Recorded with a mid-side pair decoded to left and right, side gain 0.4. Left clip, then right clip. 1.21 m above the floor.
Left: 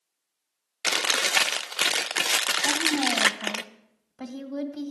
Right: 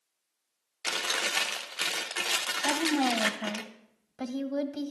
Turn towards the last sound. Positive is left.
turn(degrees=-40)